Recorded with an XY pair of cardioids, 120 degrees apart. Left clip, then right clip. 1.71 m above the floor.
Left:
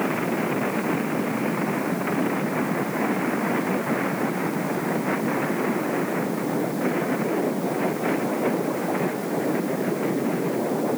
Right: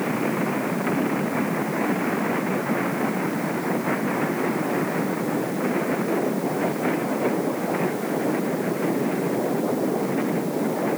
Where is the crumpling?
I don't hear crumpling.